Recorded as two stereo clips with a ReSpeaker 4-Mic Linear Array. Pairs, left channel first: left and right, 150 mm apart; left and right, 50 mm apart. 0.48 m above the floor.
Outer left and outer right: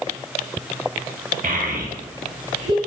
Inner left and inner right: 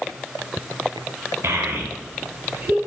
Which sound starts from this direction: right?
A child speaking, at 1.4 s.